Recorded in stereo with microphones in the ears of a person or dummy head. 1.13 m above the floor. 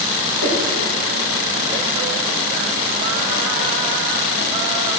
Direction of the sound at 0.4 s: 80° left.